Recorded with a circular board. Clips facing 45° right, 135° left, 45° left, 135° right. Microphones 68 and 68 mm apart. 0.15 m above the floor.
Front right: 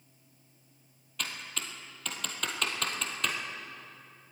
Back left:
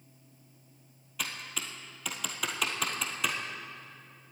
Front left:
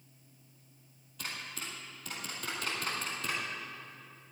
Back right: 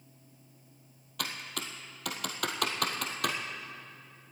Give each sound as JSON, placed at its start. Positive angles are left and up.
{"t": 1.2, "sound": "typing on a keyboard", "azimuth_deg": -140, "distance_m": 1.7}